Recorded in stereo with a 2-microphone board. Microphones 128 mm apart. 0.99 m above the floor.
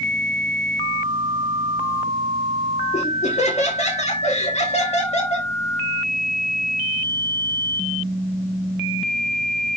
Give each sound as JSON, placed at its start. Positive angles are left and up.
{"t": 2.9, "sound": "laughter", "side_deg": 60, "distance_m": 1.9}